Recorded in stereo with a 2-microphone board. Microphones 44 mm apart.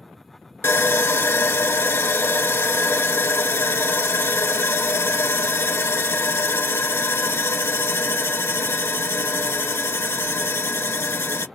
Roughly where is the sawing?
Left.